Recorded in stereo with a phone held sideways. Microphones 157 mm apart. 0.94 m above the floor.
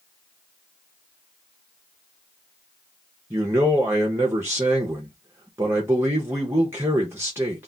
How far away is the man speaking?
About 0.5 m.